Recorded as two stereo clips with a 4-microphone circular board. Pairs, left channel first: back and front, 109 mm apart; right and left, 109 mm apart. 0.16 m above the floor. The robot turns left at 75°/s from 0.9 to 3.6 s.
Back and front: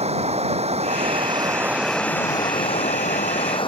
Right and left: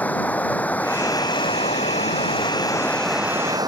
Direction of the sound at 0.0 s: 15° right.